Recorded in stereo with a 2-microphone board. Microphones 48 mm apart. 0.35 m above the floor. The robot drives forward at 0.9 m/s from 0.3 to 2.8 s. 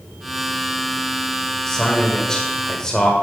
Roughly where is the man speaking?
Centre.